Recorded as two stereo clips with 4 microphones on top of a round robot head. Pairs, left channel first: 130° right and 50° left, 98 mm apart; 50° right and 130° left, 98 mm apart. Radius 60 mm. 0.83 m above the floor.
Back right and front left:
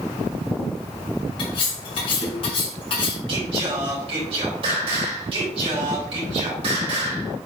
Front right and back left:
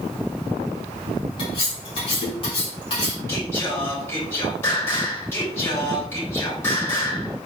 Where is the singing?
20° left, 3.5 m.